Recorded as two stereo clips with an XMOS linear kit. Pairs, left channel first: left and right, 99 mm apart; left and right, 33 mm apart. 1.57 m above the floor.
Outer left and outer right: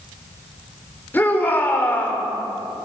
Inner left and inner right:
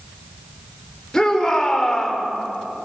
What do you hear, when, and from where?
1.1 s a shout: 20° left (ahead or behind), 5 m